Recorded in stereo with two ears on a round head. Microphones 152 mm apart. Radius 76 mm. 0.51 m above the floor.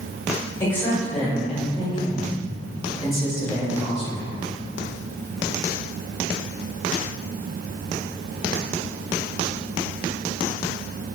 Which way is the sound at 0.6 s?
15° left (ahead or behind).